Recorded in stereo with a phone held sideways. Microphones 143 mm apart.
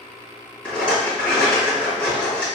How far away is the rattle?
About 1.5 m.